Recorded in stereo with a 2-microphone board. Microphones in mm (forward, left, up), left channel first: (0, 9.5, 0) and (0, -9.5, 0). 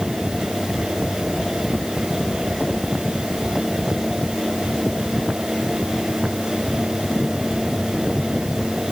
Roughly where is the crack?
No crack in this recording.